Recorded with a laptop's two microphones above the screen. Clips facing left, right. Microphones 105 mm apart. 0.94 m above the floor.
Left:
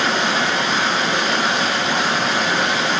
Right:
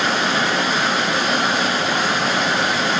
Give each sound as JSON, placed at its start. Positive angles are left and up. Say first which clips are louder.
{"t": 0.0, "sound": "running water", "louder": "even", "side_deg": -5, "distance_m": 2.5}